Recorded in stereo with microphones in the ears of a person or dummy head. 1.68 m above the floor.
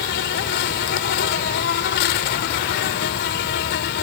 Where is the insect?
60° left (ahead or behind).